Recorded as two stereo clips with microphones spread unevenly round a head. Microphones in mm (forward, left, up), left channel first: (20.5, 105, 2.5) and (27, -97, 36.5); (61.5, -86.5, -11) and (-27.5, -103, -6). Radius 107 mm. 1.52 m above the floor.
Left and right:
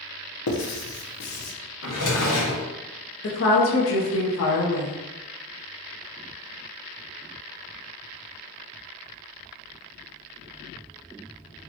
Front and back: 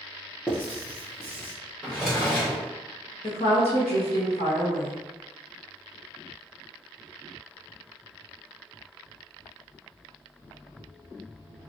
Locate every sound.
0.5 s writing: 95° left, 0.7 m
1.8 s a drawer: 105° left, 1.2 m
3.2 s a woman speaking: 65° left, 0.8 m